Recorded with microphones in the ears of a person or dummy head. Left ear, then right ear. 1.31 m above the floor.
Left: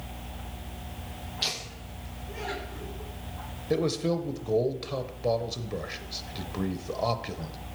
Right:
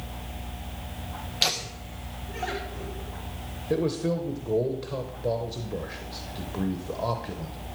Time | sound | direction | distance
1.4 | laughter | 30° right (ahead or behind) | 0.8 m
3.7 | a man speaking | 15° left (ahead or behind) | 0.7 m